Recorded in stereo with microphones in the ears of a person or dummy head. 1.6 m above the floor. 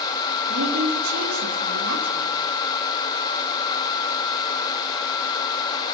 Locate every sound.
0.5 s a woman speaking: 75° right (ahead or behind), 2 m